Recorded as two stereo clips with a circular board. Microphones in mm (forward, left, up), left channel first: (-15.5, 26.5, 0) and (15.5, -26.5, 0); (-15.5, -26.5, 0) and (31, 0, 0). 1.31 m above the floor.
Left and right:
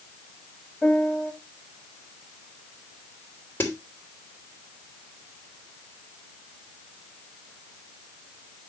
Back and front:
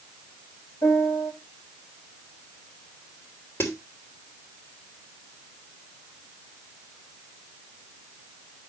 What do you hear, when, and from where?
0.8 s a piano: 160° right, 5.5 m
3.6 s a snare drum: 170° left, 2.5 m